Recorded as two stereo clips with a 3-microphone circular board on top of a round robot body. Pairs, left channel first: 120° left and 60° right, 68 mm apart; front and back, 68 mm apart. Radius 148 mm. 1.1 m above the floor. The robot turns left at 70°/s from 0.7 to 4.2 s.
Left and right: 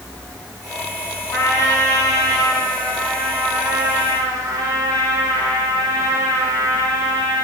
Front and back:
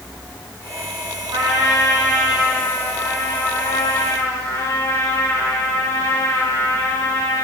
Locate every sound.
1.3 s a trumpet: 160° left, 5.5 m; by 7.5 s 45° right, 5.5 m